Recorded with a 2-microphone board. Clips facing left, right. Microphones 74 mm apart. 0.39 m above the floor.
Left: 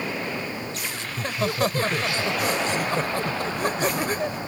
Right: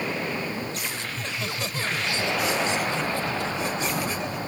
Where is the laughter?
45° left (ahead or behind).